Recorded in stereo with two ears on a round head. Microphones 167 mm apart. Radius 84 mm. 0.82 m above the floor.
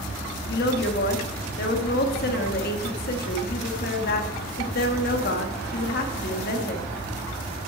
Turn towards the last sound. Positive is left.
turn(degrees=50)  # may be behind; listen again after turning